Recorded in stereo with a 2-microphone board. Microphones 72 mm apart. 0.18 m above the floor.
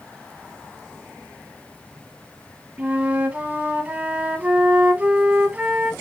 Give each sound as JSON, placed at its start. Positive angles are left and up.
{"t": 2.8, "sound": "a flute", "side_deg": -20, "distance_m": 0.6}